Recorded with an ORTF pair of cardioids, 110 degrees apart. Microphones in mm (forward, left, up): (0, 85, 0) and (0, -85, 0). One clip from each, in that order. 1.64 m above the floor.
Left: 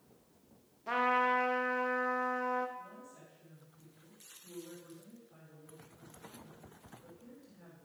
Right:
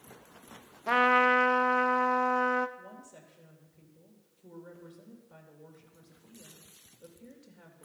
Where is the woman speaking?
55° right, 3 m.